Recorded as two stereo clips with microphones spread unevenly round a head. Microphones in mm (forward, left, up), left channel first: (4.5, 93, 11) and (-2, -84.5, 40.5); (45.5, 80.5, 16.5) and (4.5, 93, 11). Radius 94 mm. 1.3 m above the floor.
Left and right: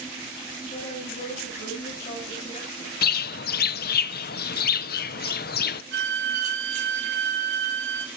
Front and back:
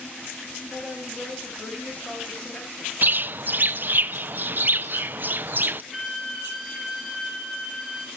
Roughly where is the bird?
Behind left.